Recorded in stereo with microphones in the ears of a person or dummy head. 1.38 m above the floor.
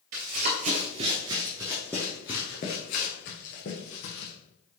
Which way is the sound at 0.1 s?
45° right (ahead or behind).